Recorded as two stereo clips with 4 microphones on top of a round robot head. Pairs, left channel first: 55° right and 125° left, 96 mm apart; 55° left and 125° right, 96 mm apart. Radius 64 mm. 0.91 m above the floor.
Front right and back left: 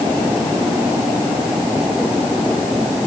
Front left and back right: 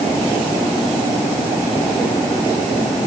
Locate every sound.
Only background noise.